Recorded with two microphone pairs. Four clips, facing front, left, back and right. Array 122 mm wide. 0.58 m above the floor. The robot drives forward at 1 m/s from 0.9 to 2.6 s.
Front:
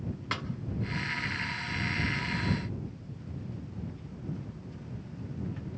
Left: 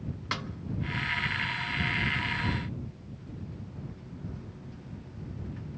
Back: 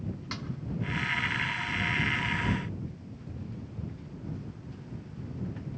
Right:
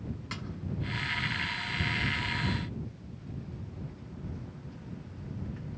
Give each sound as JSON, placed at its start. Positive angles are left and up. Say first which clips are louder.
{"t": 0.3, "sound": "a snare drum", "louder": "left 6 dB, front 4 dB", "azimuth_deg": 55, "distance_m": 0.6}